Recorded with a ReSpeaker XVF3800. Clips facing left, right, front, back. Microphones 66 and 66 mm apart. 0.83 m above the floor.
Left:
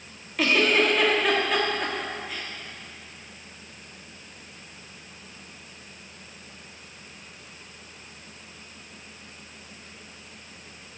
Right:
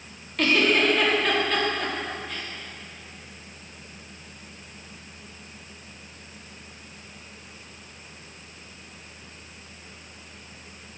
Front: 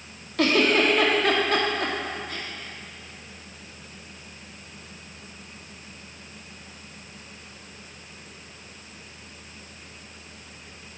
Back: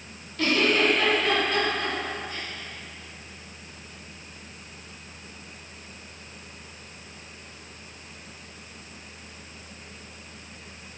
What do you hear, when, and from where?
0.4 s a giggle: 5° left, 1.2 m